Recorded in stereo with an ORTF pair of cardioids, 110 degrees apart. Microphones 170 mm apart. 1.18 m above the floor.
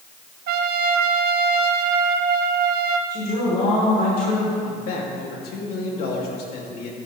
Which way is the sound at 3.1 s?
60° left.